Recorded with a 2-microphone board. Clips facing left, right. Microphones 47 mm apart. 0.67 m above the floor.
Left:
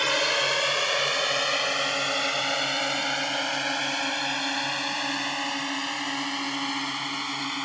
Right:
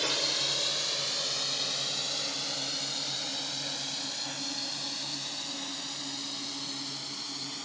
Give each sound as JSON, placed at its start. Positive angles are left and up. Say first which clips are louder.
{"t": 0.0, "sound": "a drone", "louder": "left 9 dB", "side_deg": 55}